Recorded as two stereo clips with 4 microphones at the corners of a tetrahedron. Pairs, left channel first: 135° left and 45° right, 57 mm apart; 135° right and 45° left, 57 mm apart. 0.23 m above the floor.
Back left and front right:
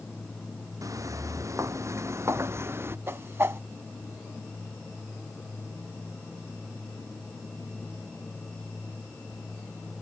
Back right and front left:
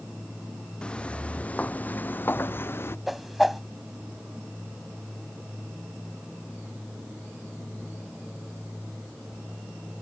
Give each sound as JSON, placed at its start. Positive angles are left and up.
{"t": 0.8, "sound": "footsteps", "azimuth_deg": -60}
{"t": 3.1, "sound": "a whoosh", "azimuth_deg": -40}